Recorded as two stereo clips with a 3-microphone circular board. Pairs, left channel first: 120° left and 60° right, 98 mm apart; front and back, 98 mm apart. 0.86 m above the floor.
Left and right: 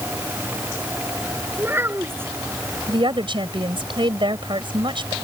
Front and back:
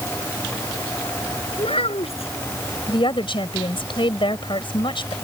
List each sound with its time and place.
1.6 s a child speaking: 5° left
2.9 s a woman speaking: 30° right